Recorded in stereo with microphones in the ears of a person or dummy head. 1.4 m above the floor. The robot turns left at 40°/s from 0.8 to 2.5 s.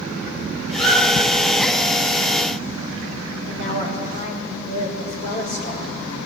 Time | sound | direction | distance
0.7 | a squeak | centre (ahead or behind) | 7.5 m
3.5 | a woman speaking | 35° left (ahead or behind) | 6 m